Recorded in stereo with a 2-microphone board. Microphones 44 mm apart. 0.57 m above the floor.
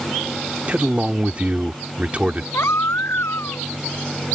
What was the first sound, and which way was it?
A man speaking, 30° right (ahead or behind).